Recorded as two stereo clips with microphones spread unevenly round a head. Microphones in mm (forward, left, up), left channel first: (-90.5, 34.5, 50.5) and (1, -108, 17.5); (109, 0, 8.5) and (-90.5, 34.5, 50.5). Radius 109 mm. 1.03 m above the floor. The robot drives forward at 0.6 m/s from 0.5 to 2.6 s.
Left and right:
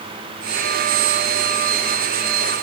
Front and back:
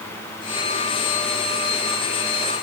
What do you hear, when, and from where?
Only background noise.